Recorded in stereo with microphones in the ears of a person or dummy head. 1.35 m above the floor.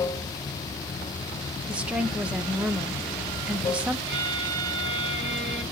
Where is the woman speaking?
10° right (ahead or behind), 0.8 m.